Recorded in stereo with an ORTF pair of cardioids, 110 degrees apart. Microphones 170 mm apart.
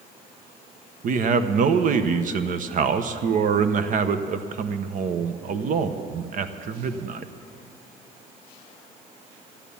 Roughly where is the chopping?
No chopping in this recording.